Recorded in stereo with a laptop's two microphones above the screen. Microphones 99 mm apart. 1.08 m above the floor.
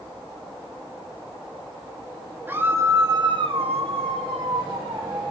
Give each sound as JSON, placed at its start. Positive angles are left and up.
{"t": 2.5, "sound": "a scream", "side_deg": -20, "distance_m": 1.8}